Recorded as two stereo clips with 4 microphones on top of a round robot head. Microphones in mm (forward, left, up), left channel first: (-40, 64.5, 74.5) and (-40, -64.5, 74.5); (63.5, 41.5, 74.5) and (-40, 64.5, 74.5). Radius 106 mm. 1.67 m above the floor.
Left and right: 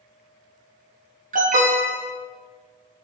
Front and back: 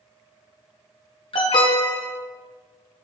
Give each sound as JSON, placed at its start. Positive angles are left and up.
{"t": 1.3, "sound": "an alarm", "azimuth_deg": -60, "distance_m": 1.6}